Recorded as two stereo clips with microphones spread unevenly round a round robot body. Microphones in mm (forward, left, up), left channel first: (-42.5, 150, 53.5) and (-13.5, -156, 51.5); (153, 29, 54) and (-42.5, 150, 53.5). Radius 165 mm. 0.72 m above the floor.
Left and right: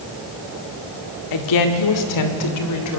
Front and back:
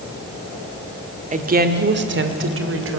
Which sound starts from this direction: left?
A woman speaking, at 1.3 s.